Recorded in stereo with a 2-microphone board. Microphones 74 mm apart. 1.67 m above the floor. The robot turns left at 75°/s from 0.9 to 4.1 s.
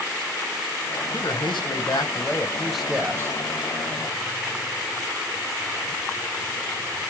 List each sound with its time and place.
1.1 s a man speaking: 120° left, 1.0 m; by 3.4 s 45° right, 1.0 m